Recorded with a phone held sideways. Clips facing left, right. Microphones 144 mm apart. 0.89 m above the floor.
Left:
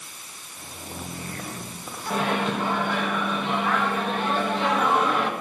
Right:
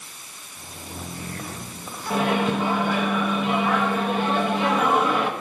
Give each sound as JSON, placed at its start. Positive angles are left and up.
{"t": 2.1, "sound": "a microwave", "side_deg": -5, "distance_m": 0.9}